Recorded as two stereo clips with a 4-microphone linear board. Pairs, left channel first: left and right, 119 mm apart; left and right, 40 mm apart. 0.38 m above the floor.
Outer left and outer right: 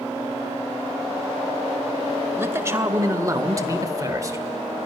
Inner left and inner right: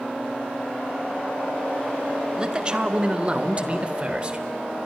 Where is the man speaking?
20° right (ahead or behind), 1.2 m; by 4.9 s 25° right (ahead or behind), 1.1 m.